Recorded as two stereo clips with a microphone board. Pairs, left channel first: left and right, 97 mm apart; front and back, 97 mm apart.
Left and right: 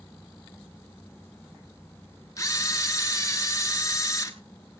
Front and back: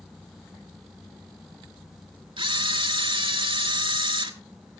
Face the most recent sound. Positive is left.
turn(degrees=145)